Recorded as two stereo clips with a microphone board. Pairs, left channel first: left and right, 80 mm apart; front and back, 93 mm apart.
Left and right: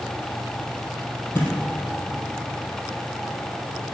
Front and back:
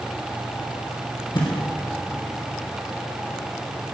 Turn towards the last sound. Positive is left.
turn(degrees=30)